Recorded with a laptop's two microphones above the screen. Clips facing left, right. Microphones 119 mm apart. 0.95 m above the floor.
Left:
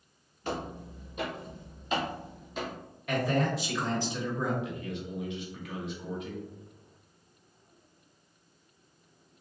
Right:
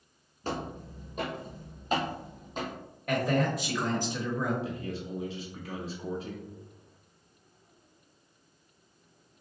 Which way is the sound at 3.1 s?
50° right (ahead or behind).